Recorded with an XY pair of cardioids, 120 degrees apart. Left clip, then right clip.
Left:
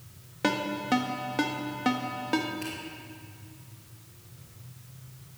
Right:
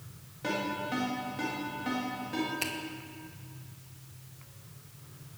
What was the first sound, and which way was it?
A ringtone, 65° left.